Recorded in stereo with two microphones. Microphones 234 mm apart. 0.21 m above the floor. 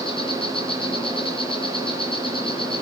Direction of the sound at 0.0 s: 20° left (ahead or behind).